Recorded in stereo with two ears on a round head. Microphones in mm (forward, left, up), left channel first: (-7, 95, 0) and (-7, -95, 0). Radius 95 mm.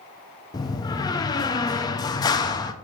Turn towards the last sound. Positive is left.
turn(degrees=20)  # may be behind; listen again after turning